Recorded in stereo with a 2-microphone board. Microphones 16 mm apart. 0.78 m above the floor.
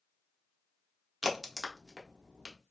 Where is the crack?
15° right (ahead or behind), 0.7 m.